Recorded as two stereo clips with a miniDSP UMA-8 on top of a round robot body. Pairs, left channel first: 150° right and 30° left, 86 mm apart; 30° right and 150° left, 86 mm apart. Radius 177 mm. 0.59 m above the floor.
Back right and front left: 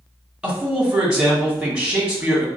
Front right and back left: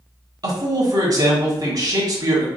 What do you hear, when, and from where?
0.4 s a man speaking: 110° left, 1.6 m